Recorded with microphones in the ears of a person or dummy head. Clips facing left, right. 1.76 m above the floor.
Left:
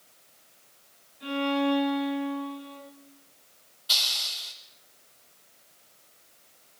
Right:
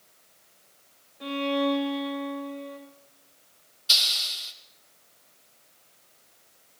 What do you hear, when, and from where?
1.2 s a violin: 65° right (ahead or behind), 6.5 m
3.9 s a hiss: 30° right (ahead or behind), 1.6 m